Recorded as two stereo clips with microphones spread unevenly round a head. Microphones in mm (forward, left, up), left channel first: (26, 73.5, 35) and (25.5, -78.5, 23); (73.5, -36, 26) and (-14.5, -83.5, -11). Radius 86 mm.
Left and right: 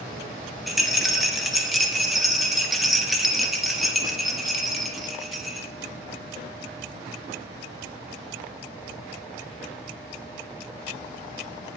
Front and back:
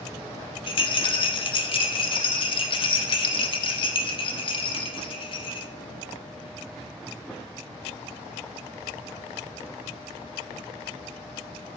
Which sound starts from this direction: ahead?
A rattle, at 0.7 s.